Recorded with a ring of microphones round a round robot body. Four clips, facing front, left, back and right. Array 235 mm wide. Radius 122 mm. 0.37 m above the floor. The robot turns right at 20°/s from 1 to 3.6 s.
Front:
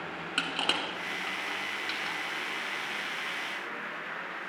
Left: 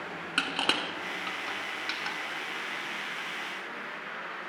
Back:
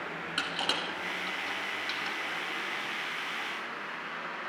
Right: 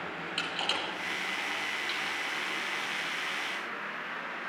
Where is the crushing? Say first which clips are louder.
Left 5 dB, front 2 dB; 70° left, 3 m; by 2.2 s 95° left, 3 m.